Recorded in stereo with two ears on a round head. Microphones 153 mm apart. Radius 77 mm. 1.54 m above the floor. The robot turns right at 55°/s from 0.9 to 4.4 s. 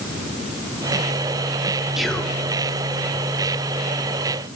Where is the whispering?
5° right (ahead or behind), 0.5 m; by 2.3 s 15° left (ahead or behind), 0.5 m.